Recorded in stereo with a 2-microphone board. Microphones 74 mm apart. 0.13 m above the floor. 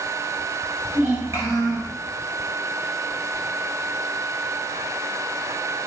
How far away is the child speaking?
About 1.8 m.